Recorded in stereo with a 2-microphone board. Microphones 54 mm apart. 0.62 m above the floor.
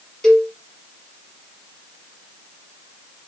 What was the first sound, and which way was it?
A cowbell, 10° left (ahead or behind).